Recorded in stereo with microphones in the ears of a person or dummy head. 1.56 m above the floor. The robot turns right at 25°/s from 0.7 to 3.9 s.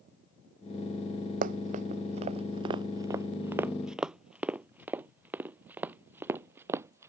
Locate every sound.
1.4 s running footsteps: 50° right (ahead or behind); by 7.1 s 15° right (ahead or behind)